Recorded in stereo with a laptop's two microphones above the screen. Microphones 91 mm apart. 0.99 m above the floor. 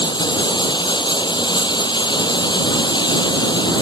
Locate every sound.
0.0 s running water: 55° left (ahead or behind)